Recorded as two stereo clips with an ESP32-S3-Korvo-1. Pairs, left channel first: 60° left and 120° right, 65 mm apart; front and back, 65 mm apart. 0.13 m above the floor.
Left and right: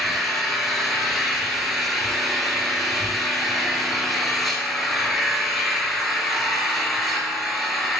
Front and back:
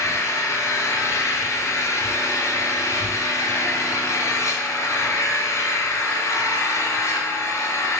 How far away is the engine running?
About 0.8 m.